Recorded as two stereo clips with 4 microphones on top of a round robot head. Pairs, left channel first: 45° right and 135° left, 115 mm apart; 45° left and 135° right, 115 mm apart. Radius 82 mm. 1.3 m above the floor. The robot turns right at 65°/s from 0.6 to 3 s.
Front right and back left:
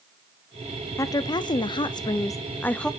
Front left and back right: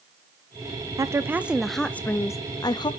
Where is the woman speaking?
90° right, 0.5 m; by 2.9 s 35° left, 0.5 m.